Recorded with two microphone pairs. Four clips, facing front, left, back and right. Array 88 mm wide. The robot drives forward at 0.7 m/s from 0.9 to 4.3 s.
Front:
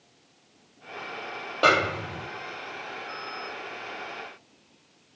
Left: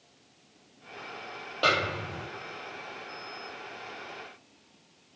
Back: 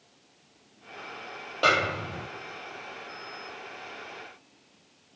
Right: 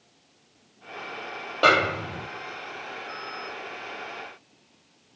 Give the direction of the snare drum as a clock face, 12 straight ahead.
2 o'clock.